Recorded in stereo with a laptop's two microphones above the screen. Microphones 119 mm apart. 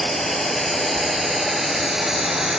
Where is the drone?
5° left (ahead or behind); by 2.6 s 5° right (ahead or behind).